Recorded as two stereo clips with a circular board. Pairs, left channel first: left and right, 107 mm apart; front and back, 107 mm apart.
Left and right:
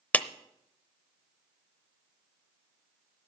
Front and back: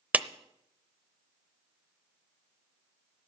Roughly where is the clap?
Behind left.